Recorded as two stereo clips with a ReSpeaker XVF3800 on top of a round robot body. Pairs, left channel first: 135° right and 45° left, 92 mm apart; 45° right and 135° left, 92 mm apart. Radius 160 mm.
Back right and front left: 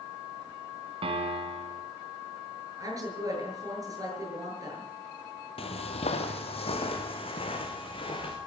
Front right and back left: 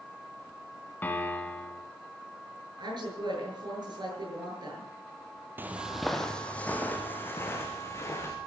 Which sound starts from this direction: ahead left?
A piano, at 1.0 s.